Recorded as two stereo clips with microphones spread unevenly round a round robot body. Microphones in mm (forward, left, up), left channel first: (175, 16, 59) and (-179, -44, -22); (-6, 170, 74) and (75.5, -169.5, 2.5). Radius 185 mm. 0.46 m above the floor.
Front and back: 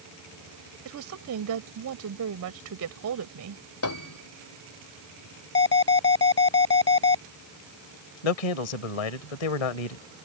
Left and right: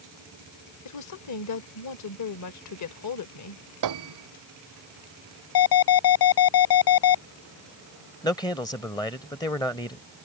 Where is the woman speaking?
150° left.